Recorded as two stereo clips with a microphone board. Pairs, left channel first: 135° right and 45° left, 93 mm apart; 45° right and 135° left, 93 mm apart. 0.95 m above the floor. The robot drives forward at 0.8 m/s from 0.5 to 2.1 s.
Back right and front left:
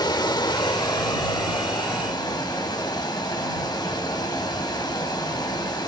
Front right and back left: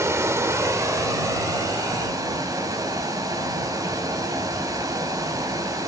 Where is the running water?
170° right, 1.1 m; by 5.9 s 175° right, 2.5 m.